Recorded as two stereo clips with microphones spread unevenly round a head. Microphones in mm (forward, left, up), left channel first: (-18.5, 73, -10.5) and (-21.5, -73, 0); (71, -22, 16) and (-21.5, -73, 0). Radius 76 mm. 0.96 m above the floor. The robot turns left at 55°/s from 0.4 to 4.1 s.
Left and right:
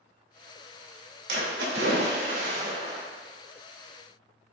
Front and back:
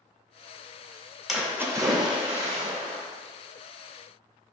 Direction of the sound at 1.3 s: 60° right.